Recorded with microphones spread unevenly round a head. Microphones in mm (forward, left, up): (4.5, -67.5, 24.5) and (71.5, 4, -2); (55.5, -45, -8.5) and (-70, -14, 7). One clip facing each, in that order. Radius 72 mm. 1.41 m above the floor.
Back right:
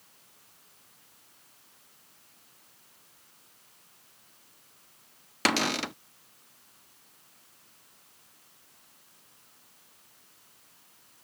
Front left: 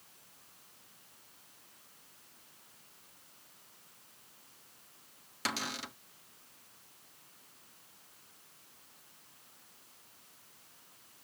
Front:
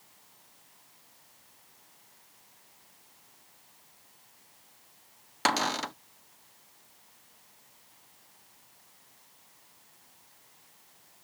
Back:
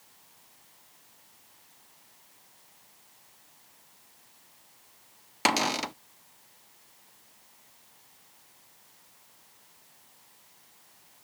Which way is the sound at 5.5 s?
115° right.